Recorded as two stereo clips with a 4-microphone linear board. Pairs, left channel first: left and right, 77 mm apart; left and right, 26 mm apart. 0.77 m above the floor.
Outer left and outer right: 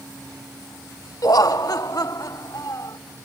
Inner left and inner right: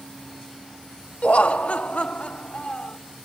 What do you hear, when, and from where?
1.2 s laughter: 55° left (ahead or behind)